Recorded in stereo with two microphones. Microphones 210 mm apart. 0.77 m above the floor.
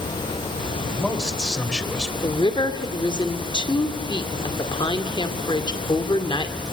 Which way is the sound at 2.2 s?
20° left (ahead or behind).